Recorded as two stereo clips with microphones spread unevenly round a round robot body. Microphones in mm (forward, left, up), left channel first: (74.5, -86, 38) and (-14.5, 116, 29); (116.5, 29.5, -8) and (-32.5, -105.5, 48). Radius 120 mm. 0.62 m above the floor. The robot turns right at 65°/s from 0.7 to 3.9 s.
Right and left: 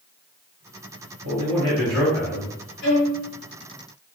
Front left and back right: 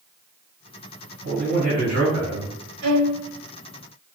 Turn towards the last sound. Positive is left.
turn(degrees=-40)